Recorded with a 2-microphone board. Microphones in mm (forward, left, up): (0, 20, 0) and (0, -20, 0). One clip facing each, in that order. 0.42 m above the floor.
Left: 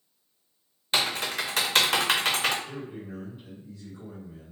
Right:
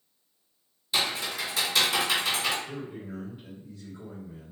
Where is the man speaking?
10° right (ahead or behind), 1.6 m.